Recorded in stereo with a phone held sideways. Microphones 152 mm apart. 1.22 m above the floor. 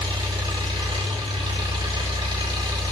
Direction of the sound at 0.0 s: 30° right (ahead or behind).